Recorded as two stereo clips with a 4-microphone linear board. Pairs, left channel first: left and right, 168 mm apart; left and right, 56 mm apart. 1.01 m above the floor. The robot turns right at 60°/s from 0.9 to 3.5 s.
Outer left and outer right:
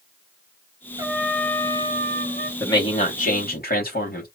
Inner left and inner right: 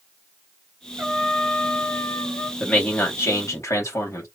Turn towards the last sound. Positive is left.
turn(degrees=70)